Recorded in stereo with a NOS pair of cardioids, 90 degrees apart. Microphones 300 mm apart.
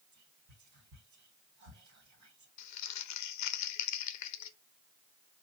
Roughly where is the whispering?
Right.